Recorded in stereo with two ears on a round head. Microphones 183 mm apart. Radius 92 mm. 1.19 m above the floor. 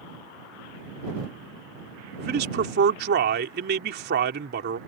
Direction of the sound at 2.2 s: 55° right (ahead or behind).